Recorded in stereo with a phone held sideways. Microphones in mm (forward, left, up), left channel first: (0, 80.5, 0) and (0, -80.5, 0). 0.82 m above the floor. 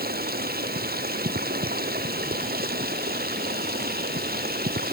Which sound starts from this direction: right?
Running water, at 0.0 s.